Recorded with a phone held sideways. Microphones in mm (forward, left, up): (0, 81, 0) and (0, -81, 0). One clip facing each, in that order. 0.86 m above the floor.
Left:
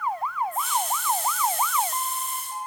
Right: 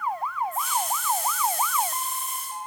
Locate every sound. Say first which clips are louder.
0.5 s a hiss: left 1 dB; centre (ahead or behind), 5.5 m